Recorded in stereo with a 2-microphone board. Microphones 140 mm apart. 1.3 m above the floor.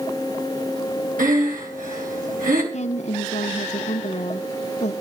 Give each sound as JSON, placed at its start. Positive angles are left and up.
{"t": 1.2, "sound": "breathing", "side_deg": -80, "distance_m": 3.5}
{"t": 2.7, "sound": "a woman speaking", "side_deg": 55, "distance_m": 1.2}